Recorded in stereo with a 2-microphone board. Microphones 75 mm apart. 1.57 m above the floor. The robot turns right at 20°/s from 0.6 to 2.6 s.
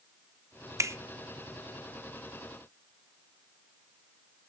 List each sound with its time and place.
0.8 s a finger snap: 40° right (ahead or behind), 0.7 m